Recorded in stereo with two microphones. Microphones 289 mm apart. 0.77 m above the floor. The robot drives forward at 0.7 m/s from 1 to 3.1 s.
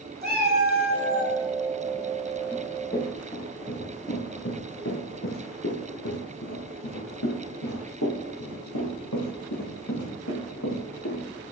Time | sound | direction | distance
0.2 | a cat meowing | 35° right (ahead or behind) | 1.9 m
2.5 | running footsteps | 25° left (ahead or behind) | 3 m